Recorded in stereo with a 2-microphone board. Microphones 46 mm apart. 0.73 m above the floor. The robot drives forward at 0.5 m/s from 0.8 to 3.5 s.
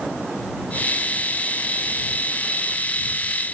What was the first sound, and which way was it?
Only background noise.